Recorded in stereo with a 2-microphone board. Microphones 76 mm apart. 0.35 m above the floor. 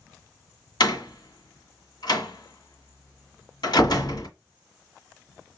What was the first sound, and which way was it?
A door slam, 70° left (ahead or behind).